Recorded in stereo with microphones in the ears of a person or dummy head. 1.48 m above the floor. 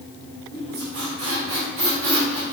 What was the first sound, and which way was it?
A squeak, 65° right (ahead or behind).